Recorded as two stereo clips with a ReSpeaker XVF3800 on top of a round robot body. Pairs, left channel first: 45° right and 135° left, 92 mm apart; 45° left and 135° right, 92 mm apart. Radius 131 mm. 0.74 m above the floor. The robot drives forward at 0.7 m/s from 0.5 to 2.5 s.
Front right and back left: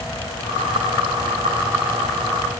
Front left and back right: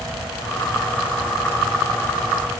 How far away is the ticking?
I don't hear ticking.